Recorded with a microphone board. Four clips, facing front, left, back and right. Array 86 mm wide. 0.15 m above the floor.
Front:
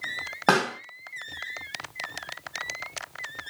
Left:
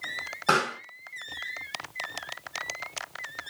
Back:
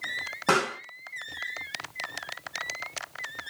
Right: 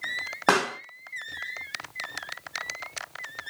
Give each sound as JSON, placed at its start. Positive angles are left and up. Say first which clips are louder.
{"t": 0.5, "sound": "a pop", "louder": "right 2 dB, front 2 dB", "azimuth_deg": -45, "distance_m": 3.0}